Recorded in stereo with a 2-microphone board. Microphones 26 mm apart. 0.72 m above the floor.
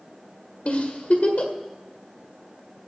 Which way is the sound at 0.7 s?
55° left (ahead or behind).